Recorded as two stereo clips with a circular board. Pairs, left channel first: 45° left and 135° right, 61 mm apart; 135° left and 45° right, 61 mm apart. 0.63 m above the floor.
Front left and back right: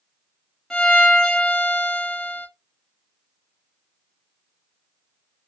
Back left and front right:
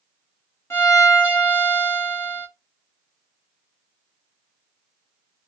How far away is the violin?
About 1.2 m.